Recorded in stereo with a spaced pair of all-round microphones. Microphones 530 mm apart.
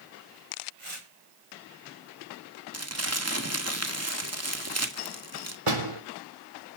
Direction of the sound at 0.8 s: 90° right.